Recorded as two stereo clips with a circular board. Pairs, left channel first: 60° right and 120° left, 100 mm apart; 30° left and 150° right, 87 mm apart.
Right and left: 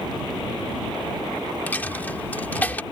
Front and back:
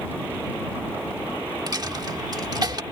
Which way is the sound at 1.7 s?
130° right.